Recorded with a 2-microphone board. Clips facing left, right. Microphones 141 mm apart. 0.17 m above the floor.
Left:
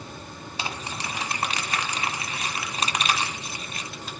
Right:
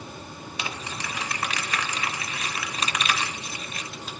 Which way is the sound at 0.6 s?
35° left (ahead or behind).